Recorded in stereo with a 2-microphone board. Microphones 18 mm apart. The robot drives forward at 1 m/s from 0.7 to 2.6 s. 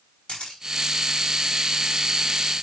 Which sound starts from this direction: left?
A camera shutter, at 0.3 s.